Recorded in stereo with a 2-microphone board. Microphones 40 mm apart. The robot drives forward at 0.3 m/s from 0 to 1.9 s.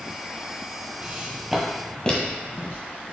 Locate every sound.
1.0 s footsteps: 35° right (ahead or behind), 1.6 m; by 2.8 s 50° left (ahead or behind), 2.0 m